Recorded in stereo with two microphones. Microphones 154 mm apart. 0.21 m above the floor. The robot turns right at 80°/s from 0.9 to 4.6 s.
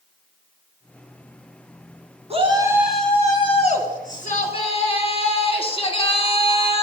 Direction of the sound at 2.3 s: 50° right.